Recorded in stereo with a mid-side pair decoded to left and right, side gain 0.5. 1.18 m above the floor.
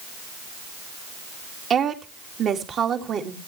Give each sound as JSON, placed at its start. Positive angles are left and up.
{"t": 1.7, "sound": "a woman speaking", "azimuth_deg": -55, "distance_m": 2.5}